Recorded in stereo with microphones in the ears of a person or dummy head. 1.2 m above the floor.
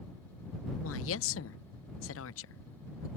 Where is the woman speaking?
60° left (ahead or behind).